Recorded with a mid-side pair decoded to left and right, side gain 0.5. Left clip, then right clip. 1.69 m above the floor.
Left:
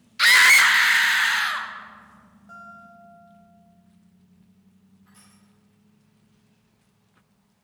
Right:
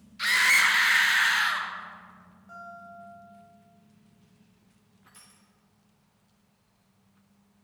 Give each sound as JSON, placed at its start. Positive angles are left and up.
{"t": 0.2, "sound": "a scream", "azimuth_deg": 65, "distance_m": 0.6}
{"t": 2.5, "sound": "a guitar", "azimuth_deg": 20, "distance_m": 2.5}
{"t": 5.1, "sound": "crushing", "azimuth_deg": -35, "distance_m": 3.5}